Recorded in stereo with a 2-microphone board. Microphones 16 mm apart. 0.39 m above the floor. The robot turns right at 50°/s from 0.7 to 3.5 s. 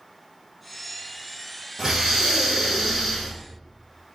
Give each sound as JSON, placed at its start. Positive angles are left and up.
{"t": 1.8, "sound": "breathing", "azimuth_deg": -75, "distance_m": 2.0}